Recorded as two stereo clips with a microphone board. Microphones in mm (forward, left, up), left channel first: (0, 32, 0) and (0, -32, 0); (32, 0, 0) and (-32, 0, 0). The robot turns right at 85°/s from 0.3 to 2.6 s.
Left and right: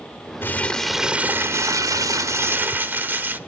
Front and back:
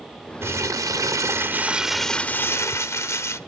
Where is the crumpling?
140° left, 0.8 m; by 3.4 s 35° right, 0.8 m.